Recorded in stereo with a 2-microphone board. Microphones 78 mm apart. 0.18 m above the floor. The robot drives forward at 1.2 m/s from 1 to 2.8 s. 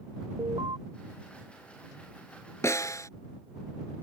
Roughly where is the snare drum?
Left.